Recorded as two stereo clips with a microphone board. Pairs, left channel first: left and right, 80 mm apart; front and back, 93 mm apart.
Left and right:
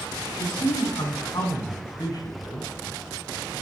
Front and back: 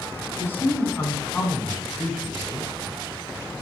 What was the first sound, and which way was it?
A man speaking, 65° left.